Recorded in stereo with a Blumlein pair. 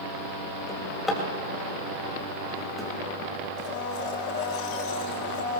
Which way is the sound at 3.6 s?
40° left.